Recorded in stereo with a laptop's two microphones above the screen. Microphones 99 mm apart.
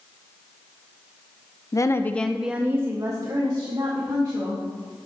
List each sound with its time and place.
1.7 s a woman speaking: 35° left (ahead or behind), 0.7 m; by 5.1 s 50° right (ahead or behind), 2.5 m